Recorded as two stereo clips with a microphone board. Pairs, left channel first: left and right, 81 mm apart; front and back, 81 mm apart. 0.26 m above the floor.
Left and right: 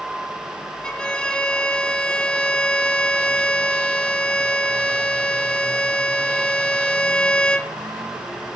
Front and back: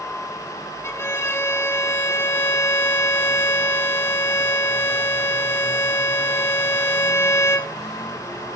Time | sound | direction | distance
0.8 | a violin | 20° left | 0.7 m